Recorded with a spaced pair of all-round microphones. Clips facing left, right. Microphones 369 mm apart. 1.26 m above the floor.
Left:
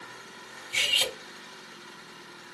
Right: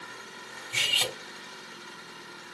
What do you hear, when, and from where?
0.7 s cutlery clinking: 55° right (ahead or behind), 2.5 m